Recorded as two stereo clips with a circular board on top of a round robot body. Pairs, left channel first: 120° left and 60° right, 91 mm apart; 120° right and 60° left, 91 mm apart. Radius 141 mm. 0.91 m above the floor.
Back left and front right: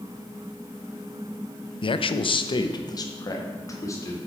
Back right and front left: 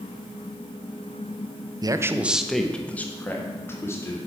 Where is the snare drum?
I don't hear a snare drum.